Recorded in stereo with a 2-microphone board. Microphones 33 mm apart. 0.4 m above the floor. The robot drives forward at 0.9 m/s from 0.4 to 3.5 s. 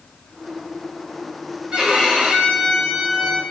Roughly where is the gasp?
I don't hear a gasp.